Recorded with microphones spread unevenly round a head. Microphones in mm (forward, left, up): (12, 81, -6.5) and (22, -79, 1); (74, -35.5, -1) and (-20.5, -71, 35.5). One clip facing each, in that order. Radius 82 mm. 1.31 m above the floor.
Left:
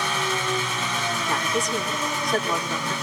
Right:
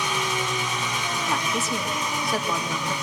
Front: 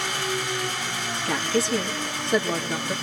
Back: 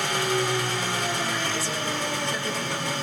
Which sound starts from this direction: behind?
An engine running, at 0.0 s.